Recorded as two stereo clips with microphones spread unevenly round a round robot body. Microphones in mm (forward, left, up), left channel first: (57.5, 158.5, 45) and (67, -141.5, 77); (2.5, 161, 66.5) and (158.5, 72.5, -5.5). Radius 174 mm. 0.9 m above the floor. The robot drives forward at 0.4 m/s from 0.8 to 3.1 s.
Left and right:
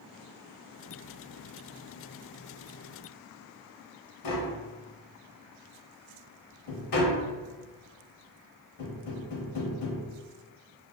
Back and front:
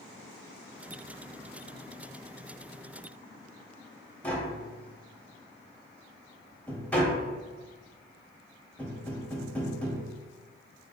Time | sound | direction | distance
4.2 | tapping | 75° left | 0.7 m